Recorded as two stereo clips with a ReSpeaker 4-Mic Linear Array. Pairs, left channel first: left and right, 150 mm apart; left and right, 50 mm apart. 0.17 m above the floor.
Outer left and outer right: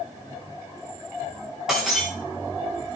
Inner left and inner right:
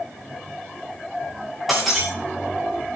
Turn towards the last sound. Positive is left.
turn(degrees=-5)  # may be behind; listen again after turning